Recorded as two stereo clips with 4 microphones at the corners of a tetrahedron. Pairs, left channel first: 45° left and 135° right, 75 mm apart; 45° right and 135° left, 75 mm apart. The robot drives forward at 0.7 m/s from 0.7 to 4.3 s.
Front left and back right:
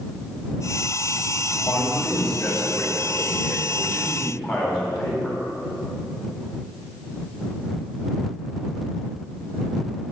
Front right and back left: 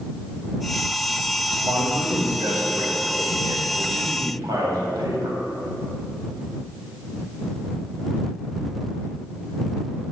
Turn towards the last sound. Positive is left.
turn(degrees=130)